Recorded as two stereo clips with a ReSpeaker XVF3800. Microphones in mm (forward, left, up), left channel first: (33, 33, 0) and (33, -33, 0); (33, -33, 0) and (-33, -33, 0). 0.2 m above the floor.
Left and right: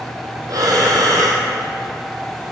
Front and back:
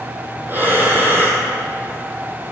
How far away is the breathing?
About 1.6 m.